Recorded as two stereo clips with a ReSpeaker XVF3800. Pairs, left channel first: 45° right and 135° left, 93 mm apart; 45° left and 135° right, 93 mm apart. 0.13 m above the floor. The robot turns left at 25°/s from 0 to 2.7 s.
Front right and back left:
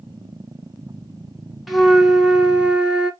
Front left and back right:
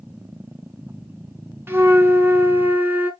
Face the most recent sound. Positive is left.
turn(degrees=-165)